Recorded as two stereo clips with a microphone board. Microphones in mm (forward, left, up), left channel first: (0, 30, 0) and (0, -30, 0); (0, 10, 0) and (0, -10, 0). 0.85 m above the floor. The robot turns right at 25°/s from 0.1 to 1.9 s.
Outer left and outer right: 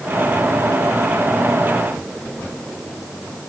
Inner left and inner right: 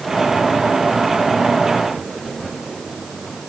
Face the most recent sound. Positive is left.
No sound to turn to.